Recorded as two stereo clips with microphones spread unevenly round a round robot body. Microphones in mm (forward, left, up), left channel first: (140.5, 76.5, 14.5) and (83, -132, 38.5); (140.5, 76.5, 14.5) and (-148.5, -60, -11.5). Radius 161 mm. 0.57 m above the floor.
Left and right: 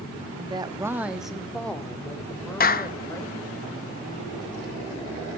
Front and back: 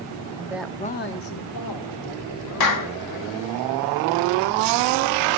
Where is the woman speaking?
155° right, 0.8 m; by 3.6 s 5° right, 3.5 m.